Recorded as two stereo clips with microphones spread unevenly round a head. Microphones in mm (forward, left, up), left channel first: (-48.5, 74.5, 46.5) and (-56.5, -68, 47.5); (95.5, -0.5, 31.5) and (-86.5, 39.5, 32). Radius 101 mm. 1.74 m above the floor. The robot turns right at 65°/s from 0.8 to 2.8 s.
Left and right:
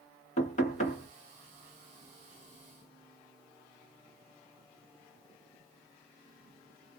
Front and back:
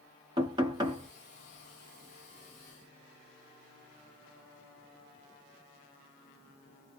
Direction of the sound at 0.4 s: 105° left.